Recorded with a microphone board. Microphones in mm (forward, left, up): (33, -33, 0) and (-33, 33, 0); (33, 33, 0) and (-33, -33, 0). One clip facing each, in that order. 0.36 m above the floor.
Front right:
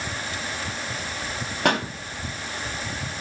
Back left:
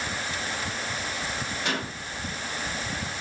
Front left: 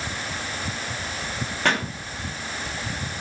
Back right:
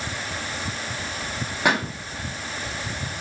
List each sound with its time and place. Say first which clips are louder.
1.6 s a pop: front right 10 dB, back right 2 dB; 60° right, 3 m